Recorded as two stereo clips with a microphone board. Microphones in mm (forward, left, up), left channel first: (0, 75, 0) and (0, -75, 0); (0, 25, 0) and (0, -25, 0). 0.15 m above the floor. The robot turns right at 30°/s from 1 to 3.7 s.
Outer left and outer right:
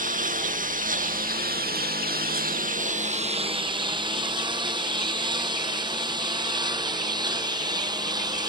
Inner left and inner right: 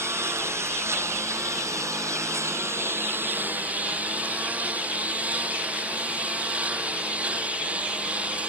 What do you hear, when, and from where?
0.0 s a lawn mower: 65° right (ahead or behind); by 8.5 s 25° right (ahead or behind)